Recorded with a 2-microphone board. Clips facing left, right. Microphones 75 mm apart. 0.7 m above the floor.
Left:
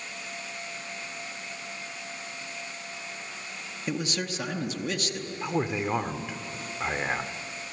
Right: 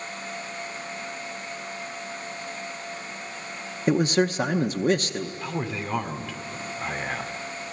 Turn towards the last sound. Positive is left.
turn(degrees=20)  # may be behind; listen again after turning